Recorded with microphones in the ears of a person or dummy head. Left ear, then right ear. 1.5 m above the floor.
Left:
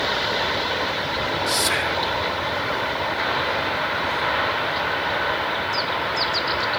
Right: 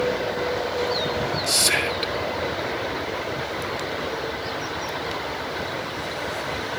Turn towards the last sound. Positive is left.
turn(degrees=-10)  # may be behind; listen again after turning